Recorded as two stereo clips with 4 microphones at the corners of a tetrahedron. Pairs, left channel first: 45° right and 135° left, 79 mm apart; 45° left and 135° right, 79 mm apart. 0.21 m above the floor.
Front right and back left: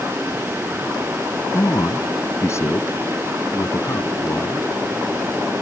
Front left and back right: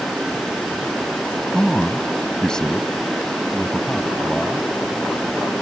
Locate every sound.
1.5 s a man speaking: 30° right